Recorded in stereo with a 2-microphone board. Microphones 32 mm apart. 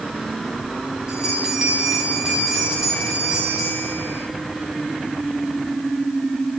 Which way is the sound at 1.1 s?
20° right (ahead or behind).